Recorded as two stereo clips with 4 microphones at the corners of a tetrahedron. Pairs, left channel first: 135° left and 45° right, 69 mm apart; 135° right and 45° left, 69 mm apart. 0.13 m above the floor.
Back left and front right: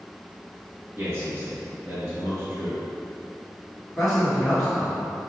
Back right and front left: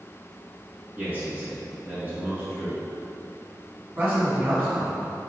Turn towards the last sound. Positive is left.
turn(degrees=40)